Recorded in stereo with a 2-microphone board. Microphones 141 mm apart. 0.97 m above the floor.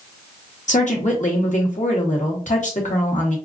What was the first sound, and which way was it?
A woman speaking, 60° left (ahead or behind).